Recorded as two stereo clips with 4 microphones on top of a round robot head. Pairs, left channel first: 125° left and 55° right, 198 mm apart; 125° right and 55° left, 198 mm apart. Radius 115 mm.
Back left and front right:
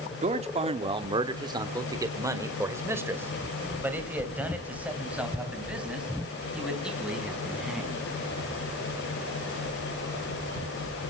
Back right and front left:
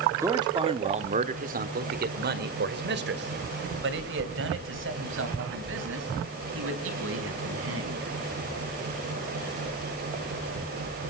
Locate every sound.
0.2 s a man speaking: 15° right, 0.9 m; by 8.0 s 35° left, 4.5 m